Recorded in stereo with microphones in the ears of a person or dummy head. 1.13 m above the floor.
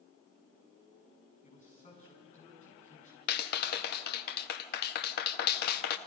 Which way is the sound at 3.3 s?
50° left (ahead or behind).